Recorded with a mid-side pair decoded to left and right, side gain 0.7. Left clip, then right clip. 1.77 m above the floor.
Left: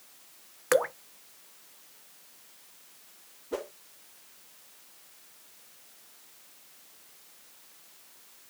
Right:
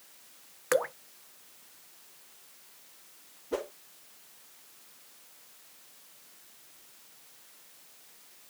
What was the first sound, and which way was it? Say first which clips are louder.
Dripping: left 3 dB; 10° left.